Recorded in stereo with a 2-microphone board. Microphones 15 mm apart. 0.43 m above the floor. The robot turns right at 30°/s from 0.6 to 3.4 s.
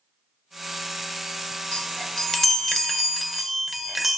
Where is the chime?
130° left, 2 m; by 4.2 s straight behind, 2 m.